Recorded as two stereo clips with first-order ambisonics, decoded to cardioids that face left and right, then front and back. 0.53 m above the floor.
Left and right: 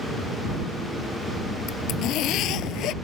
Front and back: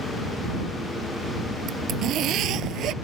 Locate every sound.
1.7 s a zipper: 130° left